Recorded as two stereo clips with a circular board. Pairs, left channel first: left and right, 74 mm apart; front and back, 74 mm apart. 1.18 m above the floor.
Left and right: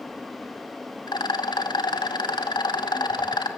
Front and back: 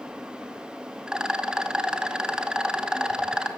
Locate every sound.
1.1 s a rattle: 100° left, 2 m